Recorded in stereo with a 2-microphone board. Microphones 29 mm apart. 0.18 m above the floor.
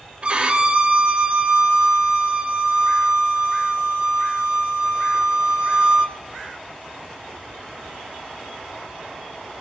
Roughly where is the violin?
Right.